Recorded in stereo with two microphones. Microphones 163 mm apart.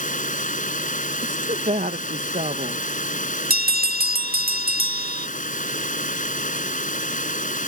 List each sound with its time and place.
0.0 s running water: 55° left (ahead or behind)
1.2 s a woman speaking: 50° right (ahead or behind)
3.5 s a bell: 65° right (ahead or behind)